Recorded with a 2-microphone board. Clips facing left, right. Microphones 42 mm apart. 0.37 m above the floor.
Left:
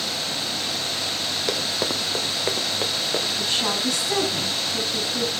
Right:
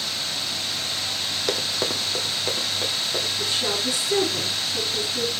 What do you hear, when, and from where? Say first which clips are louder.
1.5 s running footsteps: even; centre (ahead or behind), 1.2 m; by 3.3 s 30° left (ahead or behind), 2.5 m
3.4 s a woman speaking: left 1 dB; 45° left (ahead or behind), 5 m